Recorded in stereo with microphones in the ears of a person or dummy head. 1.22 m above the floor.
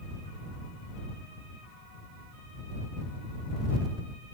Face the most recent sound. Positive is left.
No sound to turn to.